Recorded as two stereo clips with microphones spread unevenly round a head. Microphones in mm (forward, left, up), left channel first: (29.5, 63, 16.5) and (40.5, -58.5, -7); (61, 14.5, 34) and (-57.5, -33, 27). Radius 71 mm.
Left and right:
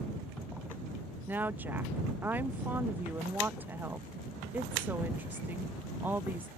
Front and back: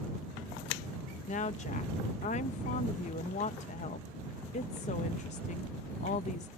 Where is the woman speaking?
15° right.